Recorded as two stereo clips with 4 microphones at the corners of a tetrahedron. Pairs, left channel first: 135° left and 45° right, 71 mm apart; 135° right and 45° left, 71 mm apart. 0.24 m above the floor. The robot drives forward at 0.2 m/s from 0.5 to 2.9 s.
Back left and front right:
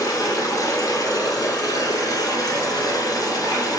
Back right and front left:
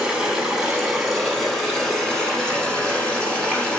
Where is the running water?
125° left, 0.7 m; by 3.8 s 150° left, 1.0 m.